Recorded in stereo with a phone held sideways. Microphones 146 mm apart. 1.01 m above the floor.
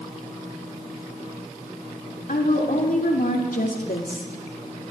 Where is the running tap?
No running tap in this recording.